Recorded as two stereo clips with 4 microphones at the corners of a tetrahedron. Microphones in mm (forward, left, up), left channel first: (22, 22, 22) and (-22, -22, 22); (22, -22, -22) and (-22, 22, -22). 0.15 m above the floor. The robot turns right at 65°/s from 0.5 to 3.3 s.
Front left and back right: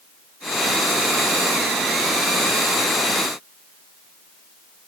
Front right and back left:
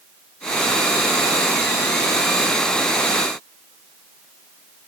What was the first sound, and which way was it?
Only background noise.